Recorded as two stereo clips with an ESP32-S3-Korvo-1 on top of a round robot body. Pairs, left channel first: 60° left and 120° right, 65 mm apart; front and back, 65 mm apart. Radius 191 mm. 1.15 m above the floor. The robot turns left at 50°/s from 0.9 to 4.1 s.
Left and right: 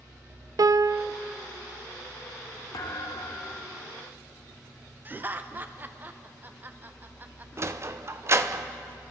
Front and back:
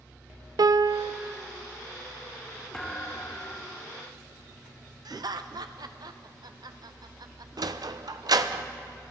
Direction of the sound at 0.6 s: 155° right.